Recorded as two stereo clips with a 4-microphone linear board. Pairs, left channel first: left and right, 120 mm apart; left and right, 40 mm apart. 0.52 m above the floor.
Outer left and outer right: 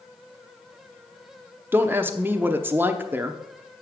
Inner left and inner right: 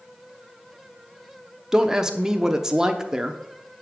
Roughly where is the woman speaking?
Centre.